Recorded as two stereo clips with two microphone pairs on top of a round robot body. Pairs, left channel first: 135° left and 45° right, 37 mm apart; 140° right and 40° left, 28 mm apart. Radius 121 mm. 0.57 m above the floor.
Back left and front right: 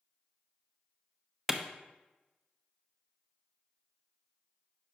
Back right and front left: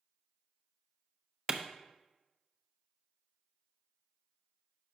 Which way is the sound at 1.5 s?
25° left.